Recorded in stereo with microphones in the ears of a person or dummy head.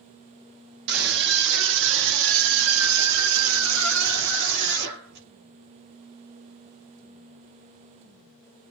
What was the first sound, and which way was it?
A scream, 55° right (ahead or behind).